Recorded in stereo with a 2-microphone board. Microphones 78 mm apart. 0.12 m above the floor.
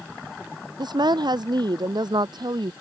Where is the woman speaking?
65° right (ahead or behind).